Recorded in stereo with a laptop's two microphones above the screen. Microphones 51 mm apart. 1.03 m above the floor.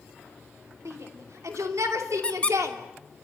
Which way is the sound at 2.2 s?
20° left (ahead or behind).